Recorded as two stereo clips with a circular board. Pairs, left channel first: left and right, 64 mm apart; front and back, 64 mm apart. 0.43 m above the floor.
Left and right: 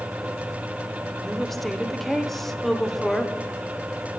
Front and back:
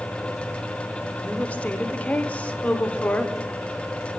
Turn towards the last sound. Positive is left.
turn(degrees=10)